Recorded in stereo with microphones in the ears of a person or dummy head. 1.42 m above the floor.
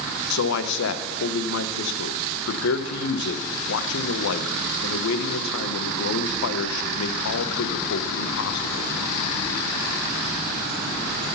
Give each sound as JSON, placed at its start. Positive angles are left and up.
{"t": 0.3, "sound": "a man speaking", "side_deg": 75, "distance_m": 1.0}